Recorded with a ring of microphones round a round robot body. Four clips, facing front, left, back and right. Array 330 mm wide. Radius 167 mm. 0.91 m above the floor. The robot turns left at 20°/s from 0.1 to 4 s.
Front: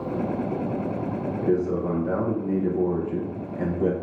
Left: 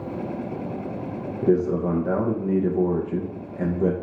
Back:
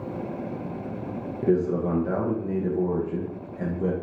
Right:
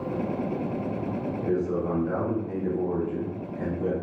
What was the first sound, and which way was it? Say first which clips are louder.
A man speaking: left 7 dB, back 1 dB; 115° left.